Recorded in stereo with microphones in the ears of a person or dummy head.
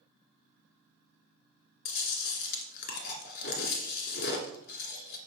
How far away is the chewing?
About 1.9 m.